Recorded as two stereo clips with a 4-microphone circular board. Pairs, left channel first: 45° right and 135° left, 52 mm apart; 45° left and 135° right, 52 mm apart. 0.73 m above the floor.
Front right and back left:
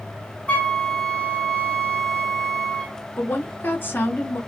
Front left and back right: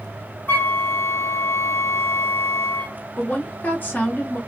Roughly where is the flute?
Ahead.